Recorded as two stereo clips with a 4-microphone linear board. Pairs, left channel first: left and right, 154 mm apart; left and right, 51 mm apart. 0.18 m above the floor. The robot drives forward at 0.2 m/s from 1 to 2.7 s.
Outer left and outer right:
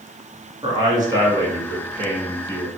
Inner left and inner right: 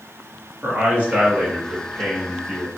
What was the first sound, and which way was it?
A man speaking, 30° right (ahead or behind).